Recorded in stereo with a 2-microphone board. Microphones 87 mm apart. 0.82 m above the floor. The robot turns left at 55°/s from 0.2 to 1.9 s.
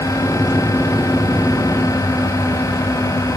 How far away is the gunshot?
I don't hear a gunshot.